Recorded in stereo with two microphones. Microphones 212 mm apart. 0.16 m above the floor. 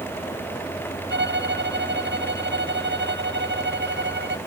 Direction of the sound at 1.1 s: 55° right (ahead or behind).